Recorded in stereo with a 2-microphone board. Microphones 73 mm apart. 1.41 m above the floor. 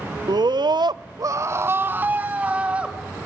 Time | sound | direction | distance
0.3 | a scream | 65° right (ahead or behind) | 0.8 m